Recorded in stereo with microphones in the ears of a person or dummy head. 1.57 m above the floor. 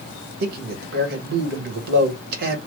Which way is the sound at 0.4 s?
55° right (ahead or behind).